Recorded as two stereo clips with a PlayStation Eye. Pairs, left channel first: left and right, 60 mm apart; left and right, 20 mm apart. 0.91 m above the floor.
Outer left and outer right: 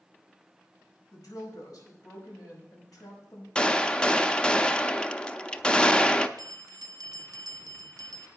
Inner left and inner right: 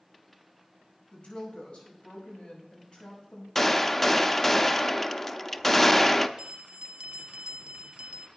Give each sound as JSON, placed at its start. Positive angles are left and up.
{"t": 1.1, "sound": "a woman speaking", "side_deg": 75, "distance_m": 5.5}
{"t": 3.5, "sound": "a gunshot", "side_deg": 15, "distance_m": 0.5}
{"t": 6.4, "sound": "a bell", "side_deg": -75, "distance_m": 0.6}